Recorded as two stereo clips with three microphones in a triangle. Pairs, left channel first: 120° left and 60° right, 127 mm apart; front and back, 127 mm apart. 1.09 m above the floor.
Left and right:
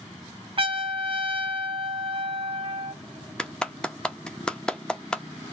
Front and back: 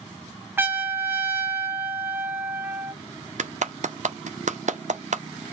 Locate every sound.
0.6 s a trumpet: 105° right, 0.8 m
3.4 s a clap: 160° right, 0.6 m